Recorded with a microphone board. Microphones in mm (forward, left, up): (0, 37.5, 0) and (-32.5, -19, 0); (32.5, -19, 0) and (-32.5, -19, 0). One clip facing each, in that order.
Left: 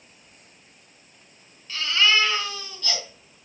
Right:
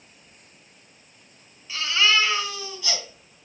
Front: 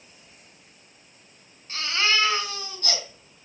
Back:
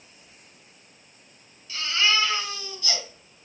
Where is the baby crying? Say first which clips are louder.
Even, even; 40° right, 3 m.